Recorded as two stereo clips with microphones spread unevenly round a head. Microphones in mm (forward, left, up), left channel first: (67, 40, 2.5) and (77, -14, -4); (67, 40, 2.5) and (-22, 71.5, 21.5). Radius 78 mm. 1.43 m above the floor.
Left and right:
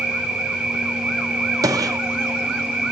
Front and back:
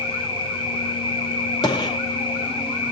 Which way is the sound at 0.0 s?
5° left.